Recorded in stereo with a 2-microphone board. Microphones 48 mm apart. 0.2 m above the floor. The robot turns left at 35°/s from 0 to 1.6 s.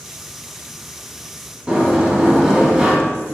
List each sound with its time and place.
1.7 s a sliding door: 20° right (ahead or behind), 1.5 m